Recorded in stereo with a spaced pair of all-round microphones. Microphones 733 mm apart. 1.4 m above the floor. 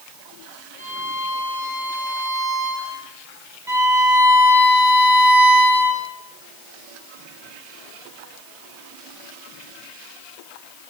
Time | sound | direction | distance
0.8 | a violin | 15° left (ahead or behind) | 8.5 m
3.7 | a violin | 5° right (ahead or behind) | 6.5 m